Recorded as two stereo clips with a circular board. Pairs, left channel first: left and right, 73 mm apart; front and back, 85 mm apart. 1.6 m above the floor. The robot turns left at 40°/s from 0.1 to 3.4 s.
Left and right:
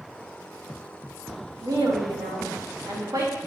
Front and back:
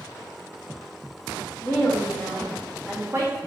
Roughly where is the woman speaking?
Ahead right.